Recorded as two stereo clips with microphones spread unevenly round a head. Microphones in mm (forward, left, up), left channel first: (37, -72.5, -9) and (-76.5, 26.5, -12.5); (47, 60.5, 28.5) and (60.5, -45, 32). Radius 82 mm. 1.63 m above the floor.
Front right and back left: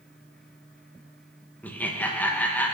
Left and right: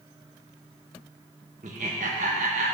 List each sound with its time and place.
1.6 s laughter: 120° right, 1.2 m